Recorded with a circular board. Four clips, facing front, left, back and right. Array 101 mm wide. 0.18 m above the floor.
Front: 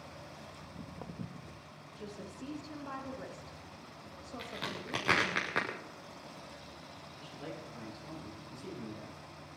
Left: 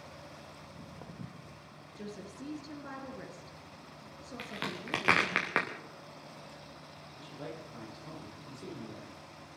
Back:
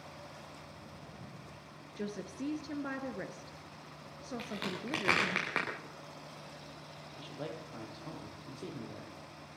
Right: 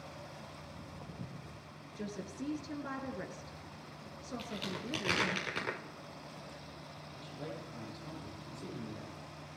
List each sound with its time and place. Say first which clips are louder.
0.6 s footsteps: even, front 3 dB; 20° left, 3 m
2.0 s a woman speaking: right 2 dB, back 6 dB; 165° right, 2.5 m
4.4 s a crack: left 3 dB, back 1 dB; 100° left, 5 m
7.2 s a man speaking: left 1 dB, back 3 dB; 170° left, 6.5 m